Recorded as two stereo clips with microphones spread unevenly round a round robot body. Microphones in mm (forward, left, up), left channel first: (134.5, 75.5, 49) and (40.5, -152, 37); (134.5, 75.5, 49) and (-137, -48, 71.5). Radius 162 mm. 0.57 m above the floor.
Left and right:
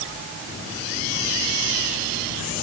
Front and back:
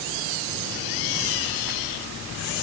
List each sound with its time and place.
Only background noise.